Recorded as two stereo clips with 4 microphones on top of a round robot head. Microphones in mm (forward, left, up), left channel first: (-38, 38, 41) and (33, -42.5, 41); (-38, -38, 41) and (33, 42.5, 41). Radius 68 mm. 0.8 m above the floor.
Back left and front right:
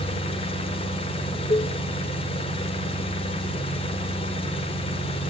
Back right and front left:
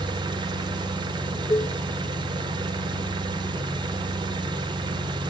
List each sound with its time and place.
0.0 s an engine running: 95° left, 3 m
1.5 s dishes clattering: 175° left, 0.5 m